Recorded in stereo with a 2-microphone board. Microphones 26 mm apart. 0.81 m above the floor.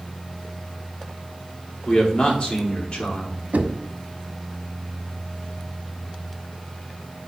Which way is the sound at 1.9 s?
45° left (ahead or behind).